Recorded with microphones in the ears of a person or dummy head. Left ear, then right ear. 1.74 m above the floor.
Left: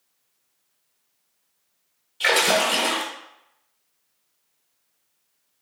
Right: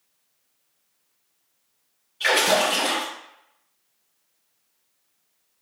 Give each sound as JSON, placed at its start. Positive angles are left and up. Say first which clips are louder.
{"t": 2.2, "sound": "a splash", "louder": "even", "side_deg": 25, "distance_m": 1.5}